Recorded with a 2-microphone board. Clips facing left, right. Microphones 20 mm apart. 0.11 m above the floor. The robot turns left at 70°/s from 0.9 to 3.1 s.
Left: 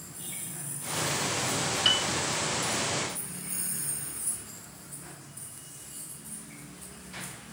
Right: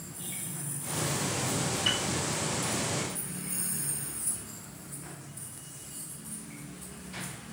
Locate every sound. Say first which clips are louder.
1.9 s a piano: left 5 dB; 75° left (ahead or behind), 1.6 m; by 2.1 s 70° left (ahead or behind), 1.6 m